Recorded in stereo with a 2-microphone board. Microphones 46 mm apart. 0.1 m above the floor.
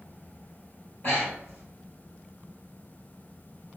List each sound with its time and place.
1.0 s breathing: 45° left (ahead or behind), 1.7 m